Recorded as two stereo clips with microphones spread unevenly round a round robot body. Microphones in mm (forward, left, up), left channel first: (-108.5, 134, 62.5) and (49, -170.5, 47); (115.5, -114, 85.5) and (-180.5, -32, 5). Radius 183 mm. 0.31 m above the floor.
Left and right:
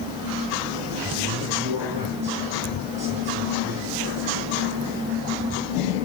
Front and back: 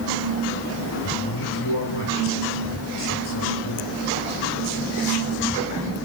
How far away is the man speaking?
About 6 m.